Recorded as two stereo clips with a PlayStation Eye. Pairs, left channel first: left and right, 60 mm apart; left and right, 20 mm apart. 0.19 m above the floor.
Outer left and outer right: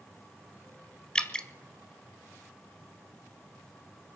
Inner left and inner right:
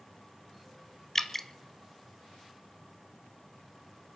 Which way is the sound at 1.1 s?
15° left (ahead or behind).